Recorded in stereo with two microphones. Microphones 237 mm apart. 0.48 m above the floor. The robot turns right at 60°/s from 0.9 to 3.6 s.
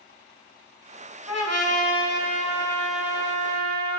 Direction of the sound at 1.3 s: 80° left.